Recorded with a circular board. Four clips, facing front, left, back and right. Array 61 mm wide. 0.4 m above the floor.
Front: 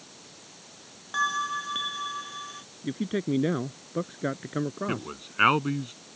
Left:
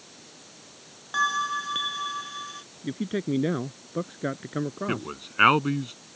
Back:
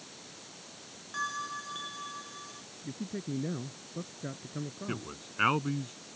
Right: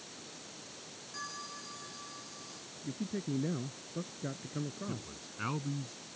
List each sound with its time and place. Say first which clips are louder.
1.1 s a bell: left 20 dB, front 8 dB; 65° left
2.8 s a man speaking: left 9 dB, front 10 dB; 45° left
4.9 s a man speaking: left 12 dB, front 6 dB; 70° left